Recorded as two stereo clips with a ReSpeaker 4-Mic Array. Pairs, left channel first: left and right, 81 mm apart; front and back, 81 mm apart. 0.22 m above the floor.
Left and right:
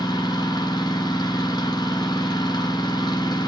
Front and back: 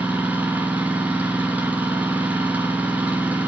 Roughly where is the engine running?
Left.